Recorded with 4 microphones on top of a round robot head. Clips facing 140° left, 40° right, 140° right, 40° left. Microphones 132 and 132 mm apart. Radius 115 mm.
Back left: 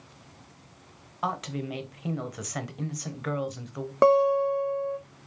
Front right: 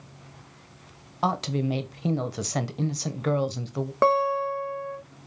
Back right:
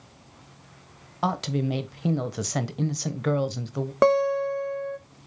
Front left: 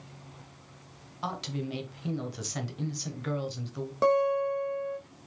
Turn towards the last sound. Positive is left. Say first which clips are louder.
# back left 3 dB, back right 4 dB
turn(degrees=-155)